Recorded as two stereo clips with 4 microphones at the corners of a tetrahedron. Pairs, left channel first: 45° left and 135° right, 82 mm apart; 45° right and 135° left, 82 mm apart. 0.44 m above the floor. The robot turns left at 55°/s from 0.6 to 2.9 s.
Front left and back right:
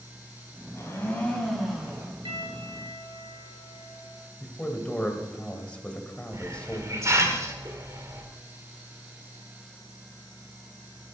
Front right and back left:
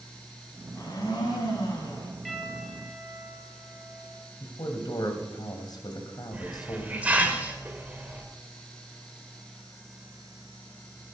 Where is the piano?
135° right, 6 m; by 4.2 s 170° right, 6 m.